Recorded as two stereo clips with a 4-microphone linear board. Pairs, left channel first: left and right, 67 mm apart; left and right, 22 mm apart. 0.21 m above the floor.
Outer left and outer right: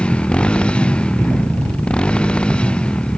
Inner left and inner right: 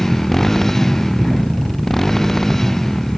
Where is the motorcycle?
15° left (ahead or behind).